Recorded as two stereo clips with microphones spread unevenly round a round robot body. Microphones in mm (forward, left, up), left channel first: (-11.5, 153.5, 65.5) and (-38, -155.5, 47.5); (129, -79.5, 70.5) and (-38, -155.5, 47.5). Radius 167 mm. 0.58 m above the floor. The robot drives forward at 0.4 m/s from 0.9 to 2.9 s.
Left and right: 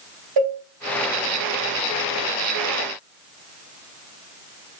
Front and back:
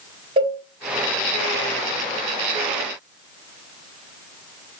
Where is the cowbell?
95° right, 3 m.